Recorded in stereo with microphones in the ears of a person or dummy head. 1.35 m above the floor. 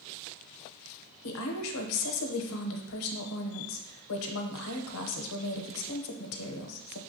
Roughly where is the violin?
No violin in this recording.